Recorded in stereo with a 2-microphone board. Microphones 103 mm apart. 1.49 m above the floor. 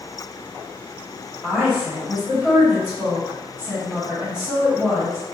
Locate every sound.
1.4 s a woman speaking: 10° right (ahead or behind), 1.4 m